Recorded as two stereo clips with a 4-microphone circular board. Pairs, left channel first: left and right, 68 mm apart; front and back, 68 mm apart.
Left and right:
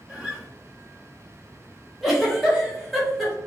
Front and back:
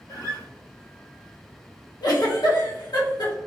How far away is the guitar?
About 1.6 m.